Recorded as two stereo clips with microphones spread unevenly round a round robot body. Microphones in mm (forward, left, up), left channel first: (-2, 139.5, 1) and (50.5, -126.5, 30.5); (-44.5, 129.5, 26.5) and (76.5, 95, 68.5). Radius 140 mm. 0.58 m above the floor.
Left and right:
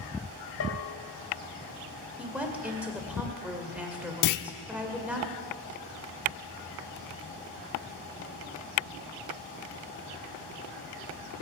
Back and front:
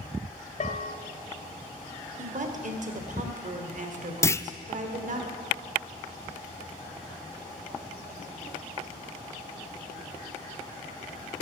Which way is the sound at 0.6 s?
140° left.